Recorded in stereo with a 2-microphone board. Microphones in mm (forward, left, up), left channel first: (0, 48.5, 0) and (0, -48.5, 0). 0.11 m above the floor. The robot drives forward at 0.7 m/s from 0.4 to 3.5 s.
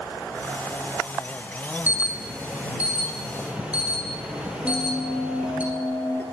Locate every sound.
1.9 s an alarm: 20° right (ahead or behind), 1.5 m; by 5.6 s 10° right (ahead or behind), 2.5 m
4.6 s a bell: 20° left (ahead or behind), 1.7 m